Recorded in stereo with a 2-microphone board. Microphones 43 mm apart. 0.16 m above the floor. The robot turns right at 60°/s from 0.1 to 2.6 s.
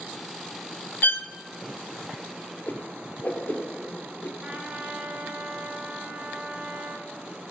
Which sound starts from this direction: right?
A trumpet, at 4.4 s.